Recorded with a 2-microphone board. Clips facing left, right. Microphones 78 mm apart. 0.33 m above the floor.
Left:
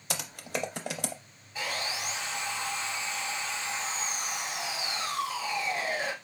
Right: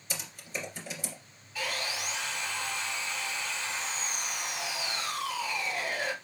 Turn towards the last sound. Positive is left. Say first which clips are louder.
# even
turn(degrees=20)  # may be behind; listen again after turning